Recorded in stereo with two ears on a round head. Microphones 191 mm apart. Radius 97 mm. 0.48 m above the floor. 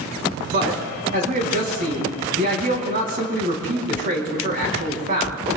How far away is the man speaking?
About 3.5 m.